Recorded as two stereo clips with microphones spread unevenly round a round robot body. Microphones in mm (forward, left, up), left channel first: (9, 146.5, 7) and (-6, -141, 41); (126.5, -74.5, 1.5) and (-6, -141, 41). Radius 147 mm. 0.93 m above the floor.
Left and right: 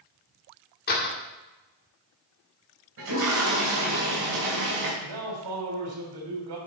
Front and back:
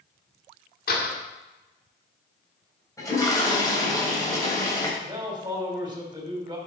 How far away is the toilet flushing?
About 4 m.